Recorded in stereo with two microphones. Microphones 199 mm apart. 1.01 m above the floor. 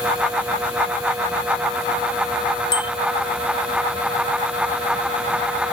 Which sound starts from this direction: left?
A bicycle bell, at 2.7 s.